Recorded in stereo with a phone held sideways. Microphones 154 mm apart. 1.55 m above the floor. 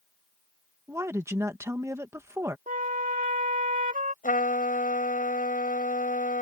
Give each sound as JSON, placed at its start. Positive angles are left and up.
{"t": 0.9, "sound": "a woman speaking", "side_deg": -20}
{"t": 2.7, "sound": "a flute", "side_deg": -60}
{"t": 4.2, "sound": "a trumpet", "side_deg": 60}